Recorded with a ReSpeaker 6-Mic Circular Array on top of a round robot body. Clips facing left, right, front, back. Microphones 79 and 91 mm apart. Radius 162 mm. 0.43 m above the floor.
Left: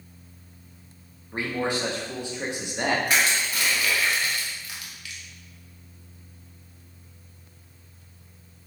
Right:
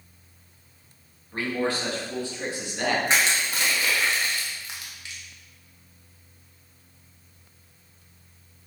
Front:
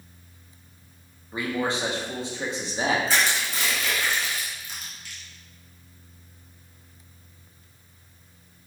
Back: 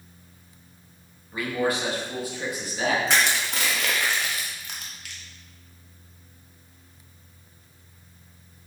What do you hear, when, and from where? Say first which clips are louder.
1.3 s a man speaking: even, back 1 dB; 35° left, 1.0 m
3.1 s crushing: even, back 1 dB; 155° right, 0.6 m